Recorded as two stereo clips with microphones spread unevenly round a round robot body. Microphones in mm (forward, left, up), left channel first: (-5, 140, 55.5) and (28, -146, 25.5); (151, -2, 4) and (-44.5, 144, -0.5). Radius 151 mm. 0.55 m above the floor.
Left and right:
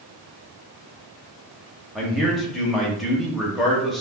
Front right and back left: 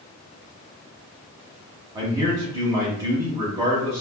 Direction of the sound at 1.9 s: 165° right.